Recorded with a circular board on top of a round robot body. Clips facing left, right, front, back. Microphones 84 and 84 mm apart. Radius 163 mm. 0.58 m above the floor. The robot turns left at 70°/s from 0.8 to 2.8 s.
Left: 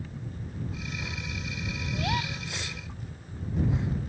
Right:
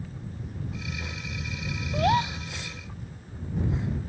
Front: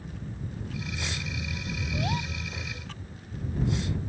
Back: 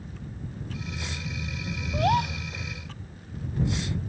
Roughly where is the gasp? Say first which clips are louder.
Right 9 dB, back 10 dB; behind right.